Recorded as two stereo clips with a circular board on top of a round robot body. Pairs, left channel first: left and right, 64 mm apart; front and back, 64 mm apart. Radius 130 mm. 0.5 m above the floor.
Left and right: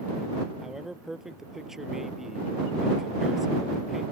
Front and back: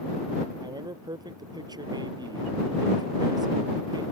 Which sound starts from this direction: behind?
A man speaking, at 0.6 s.